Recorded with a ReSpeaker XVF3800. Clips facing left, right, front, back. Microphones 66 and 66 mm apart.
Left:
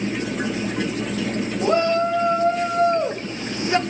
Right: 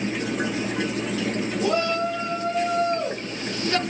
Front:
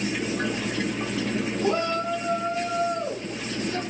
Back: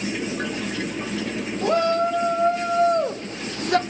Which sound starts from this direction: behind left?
A shout, at 1.6 s.